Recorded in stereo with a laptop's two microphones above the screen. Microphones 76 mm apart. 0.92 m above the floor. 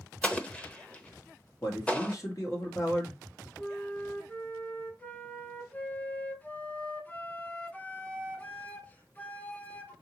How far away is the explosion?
About 0.8 m.